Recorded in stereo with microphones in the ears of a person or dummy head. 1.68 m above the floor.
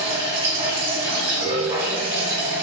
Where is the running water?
20° right (ahead or behind), 1.5 m.